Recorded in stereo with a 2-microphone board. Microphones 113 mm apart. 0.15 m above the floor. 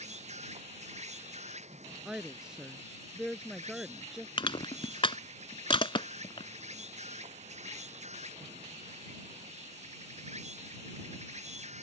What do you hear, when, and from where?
0.0 s an insect: 80° right
2.0 s a woman speaking: 5° right (ahead or behind)
4.4 s crushing: 50° left (ahead or behind)